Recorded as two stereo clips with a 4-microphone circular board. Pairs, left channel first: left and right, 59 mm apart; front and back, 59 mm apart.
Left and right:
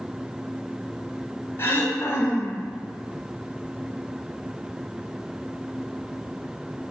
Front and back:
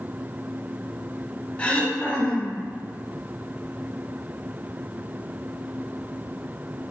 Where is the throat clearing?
60° left, 0.6 m.